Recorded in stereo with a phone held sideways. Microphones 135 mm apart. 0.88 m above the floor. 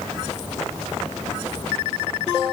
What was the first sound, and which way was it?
Only background noise.